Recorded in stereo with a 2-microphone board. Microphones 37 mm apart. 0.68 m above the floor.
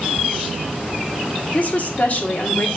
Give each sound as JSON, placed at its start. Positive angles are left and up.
{"t": 1.5, "sound": "a woman speaking", "side_deg": 45, "distance_m": 1.7}